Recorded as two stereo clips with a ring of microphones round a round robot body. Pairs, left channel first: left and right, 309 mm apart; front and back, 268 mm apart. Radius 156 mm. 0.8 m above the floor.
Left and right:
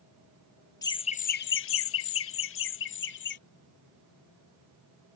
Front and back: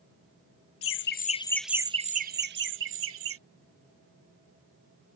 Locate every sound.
0.8 s laughter: 15° left; by 3.4 s 145° left